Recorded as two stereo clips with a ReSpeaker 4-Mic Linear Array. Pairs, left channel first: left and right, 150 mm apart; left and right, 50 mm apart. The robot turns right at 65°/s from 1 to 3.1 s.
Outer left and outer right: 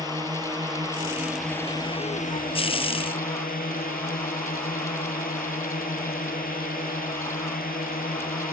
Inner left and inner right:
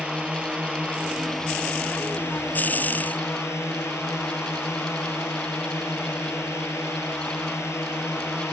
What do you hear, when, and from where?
0.0 s a drone: 25° right; by 8.5 s 110° left